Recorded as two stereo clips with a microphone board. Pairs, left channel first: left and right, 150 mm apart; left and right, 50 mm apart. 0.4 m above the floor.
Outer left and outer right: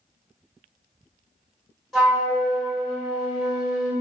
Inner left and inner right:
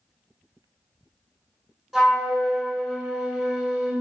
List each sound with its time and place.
1.9 s a flute: centre (ahead or behind), 1.4 m